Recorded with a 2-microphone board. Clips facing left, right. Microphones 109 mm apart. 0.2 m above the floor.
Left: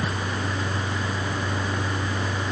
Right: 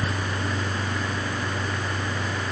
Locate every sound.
Only background noise.